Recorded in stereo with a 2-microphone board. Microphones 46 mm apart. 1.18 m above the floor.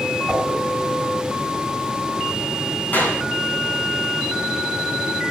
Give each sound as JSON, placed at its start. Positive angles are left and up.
{"t": 0.3, "sound": "a whoosh", "side_deg": -20, "distance_m": 5.0}
{"t": 2.9, "sound": "a clap", "side_deg": 40, "distance_m": 9.0}